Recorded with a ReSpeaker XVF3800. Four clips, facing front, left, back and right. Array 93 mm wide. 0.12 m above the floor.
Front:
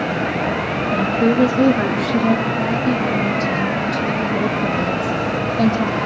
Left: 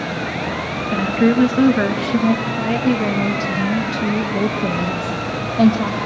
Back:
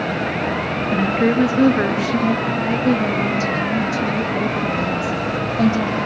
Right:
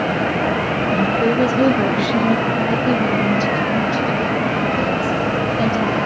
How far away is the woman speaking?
About 1.8 m.